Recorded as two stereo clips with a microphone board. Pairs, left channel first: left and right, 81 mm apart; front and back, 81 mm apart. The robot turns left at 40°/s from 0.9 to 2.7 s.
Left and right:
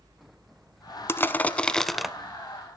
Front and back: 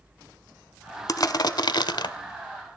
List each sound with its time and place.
1.1 s crushing: 35° left, 0.6 m; by 2.1 s 5° right, 0.6 m